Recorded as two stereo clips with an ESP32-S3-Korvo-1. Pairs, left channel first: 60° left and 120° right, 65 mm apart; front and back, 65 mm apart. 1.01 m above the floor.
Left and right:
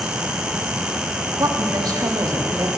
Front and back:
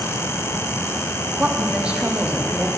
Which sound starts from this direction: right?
A woman speaking, at 1.4 s.